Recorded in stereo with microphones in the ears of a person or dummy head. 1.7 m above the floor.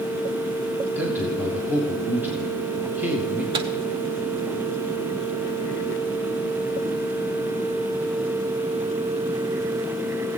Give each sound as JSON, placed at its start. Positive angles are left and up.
{"t": 0.9, "sound": "a man speaking", "side_deg": -10, "distance_m": 1.5}
{"t": 3.5, "sound": "a microwave", "side_deg": -25, "distance_m": 0.6}